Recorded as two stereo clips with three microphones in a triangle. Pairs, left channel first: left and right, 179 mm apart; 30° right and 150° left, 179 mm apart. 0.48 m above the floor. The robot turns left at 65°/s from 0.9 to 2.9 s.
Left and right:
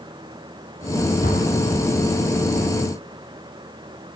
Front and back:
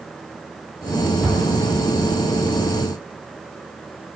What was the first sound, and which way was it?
An explosion, 55° left.